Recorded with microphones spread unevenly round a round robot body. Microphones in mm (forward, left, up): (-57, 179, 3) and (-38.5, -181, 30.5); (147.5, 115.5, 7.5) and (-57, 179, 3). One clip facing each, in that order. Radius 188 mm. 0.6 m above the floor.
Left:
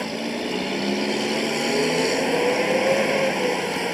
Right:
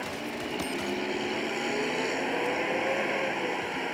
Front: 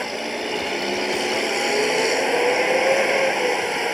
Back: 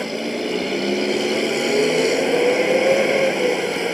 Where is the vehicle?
115° left.